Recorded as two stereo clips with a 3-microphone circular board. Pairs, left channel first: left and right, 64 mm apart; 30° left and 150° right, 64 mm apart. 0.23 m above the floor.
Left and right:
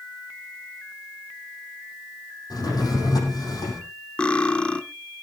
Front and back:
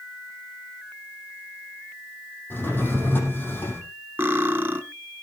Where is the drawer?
90° left, 6 m.